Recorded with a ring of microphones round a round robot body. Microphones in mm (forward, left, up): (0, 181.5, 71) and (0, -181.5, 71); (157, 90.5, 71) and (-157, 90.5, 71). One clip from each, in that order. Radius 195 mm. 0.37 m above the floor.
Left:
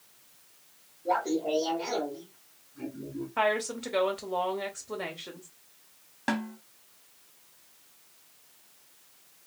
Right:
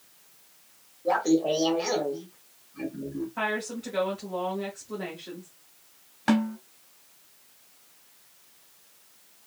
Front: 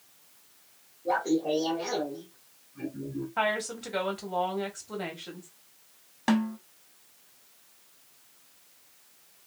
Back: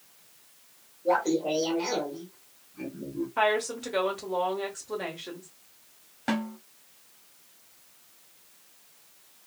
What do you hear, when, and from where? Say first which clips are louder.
1.1 s laughter: right 4 dB, back 2 dB; 105° right, 1.2 m
3.4 s a woman speaking: left 4 dB, back 3 dB; 85° left, 1.3 m
6.3 s a snare drum: right 5 dB, front 3 dB; 20° right, 1.2 m